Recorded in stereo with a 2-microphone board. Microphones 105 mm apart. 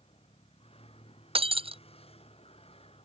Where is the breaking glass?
60° right (ahead or behind).